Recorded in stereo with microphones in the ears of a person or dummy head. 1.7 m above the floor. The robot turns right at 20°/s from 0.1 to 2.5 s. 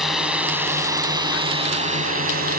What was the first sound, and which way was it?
A drone, 5° right (ahead or behind).